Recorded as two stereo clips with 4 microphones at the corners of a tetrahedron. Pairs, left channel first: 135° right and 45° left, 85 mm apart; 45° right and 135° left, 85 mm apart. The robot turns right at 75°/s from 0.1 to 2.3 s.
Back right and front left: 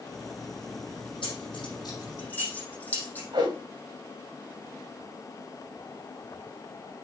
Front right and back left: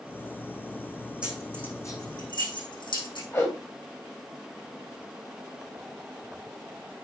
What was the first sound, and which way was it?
Keys jangling, 145° right.